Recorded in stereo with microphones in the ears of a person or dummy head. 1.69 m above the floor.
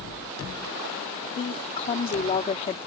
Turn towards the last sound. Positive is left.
turn(degrees=35)  # may be behind; listen again after turning